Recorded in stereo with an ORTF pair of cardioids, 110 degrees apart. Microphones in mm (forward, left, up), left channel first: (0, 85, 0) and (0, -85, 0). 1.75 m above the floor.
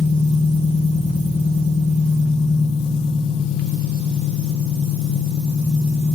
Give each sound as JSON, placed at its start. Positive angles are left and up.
{"t": 0.0, "sound": "an engine running", "azimuth_deg": 35, "distance_m": 1.5}